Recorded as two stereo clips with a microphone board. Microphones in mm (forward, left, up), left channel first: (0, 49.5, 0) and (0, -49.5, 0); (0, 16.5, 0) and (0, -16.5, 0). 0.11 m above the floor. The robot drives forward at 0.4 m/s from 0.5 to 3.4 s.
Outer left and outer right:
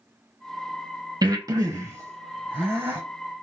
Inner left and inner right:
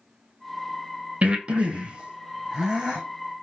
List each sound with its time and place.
1.2 s breathing: 40° right (ahead or behind), 0.7 m; by 3.0 s 20° right (ahead or behind), 1.3 m